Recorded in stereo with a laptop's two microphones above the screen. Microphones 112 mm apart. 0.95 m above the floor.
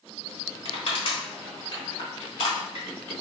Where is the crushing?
50° left (ahead or behind), 1.4 m.